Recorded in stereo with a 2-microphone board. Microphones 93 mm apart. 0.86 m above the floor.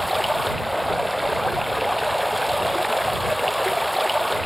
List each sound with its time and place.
0.0 s running water: centre (ahead or behind)